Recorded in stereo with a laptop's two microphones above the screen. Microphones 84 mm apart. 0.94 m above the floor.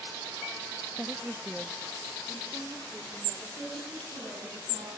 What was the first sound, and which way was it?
A woman speaking, 15° right (ahead or behind).